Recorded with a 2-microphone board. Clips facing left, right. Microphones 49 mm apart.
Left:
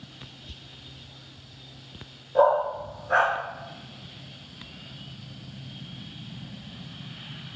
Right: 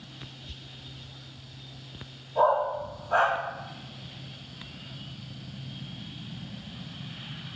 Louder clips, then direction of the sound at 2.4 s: Left 3 dB; 85° left.